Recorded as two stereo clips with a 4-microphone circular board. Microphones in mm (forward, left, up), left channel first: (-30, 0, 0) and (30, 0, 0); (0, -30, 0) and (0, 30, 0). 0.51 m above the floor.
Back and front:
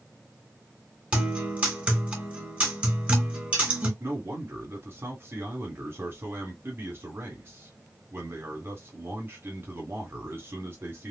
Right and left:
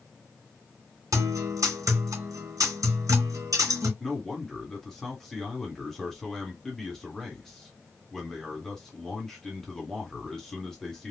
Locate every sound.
1.1 s a guitar: 70° left, 2.5 m
4.0 s a man speaking: 10° right, 1.7 m